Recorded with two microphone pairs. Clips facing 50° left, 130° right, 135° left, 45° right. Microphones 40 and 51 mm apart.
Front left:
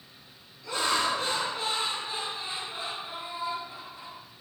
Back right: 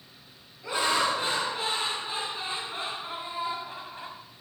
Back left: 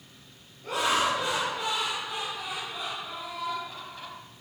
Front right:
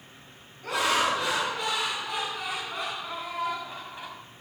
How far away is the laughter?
About 6 m.